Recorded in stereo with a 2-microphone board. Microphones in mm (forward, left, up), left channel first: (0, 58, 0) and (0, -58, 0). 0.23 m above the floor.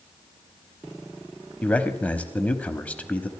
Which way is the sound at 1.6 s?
10° left (ahead or behind).